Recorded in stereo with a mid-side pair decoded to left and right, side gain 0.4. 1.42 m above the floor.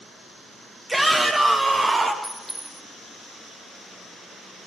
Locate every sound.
0.9 s a shout: 20° right, 2 m; by 2.1 s 35° right, 2.5 m
2.2 s a clink: straight ahead, 3.5 m